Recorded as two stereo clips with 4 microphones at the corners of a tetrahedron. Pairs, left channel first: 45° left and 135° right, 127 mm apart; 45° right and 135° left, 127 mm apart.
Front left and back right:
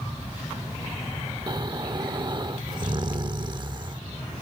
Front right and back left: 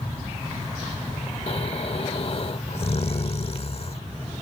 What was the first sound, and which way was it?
Snoring, 80° right.